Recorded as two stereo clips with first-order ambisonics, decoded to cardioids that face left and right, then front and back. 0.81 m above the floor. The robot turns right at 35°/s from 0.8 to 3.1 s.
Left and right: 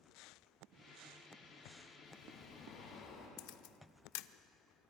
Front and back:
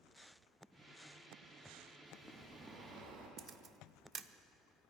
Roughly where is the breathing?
Left.